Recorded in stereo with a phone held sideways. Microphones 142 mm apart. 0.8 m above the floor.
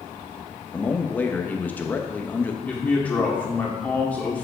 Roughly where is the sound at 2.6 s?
Centre.